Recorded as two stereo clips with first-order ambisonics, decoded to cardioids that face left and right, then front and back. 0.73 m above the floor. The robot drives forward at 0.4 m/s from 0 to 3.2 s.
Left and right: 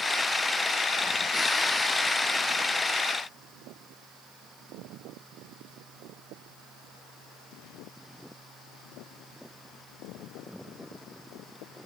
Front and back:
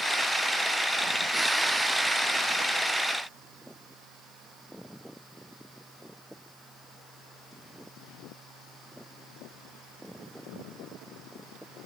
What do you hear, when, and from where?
Only background noise.